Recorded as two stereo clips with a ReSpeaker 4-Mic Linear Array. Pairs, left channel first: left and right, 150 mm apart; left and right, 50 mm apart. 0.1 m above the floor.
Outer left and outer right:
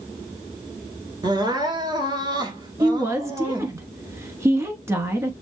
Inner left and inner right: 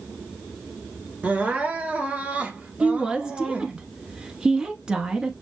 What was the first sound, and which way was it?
Crying, 30° right (ahead or behind).